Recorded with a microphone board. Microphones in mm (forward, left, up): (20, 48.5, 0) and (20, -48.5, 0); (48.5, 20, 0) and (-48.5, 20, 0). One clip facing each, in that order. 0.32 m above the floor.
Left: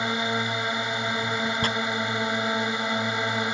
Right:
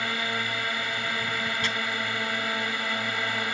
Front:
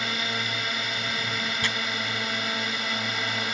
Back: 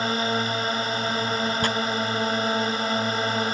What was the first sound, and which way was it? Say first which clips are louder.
A drone: left 4 dB, back 7 dB; 150° left.